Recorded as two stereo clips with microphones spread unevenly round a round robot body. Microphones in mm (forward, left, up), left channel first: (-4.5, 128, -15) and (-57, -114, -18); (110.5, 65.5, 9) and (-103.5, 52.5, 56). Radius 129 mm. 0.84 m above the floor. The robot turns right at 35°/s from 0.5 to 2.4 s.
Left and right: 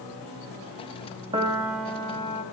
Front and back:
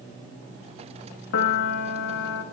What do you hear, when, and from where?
1.3 s a piano: 30° right, 0.5 m; by 2.4 s 5° left, 0.5 m